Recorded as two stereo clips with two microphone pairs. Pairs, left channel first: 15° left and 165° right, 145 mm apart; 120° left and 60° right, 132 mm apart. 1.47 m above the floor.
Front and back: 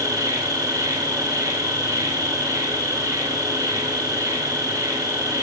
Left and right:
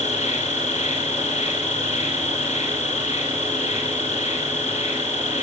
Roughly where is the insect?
Behind left.